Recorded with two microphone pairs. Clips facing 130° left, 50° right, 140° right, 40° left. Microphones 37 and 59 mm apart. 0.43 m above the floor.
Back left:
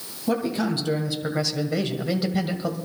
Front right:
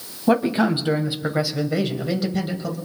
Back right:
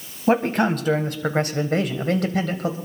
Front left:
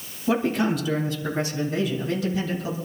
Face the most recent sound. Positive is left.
turn(degrees=-160)